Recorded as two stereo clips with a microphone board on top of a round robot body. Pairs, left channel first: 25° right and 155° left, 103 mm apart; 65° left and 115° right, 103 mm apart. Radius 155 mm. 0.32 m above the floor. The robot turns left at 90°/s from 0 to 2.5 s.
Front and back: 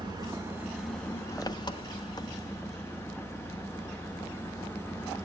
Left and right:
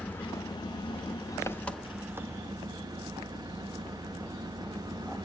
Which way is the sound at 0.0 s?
145° left.